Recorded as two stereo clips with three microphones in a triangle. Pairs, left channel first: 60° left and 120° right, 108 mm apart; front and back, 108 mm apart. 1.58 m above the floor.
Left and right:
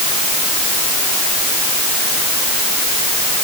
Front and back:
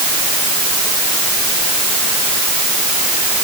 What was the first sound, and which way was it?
Only background noise.